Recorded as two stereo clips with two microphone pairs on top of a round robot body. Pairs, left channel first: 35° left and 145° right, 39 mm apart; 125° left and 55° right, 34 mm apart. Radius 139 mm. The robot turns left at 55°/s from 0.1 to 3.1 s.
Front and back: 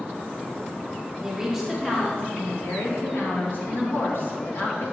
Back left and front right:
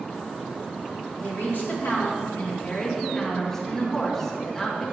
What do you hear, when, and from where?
1.2 s a woman speaking: 145° left, 2 m; by 4.8 s 45° left, 2 m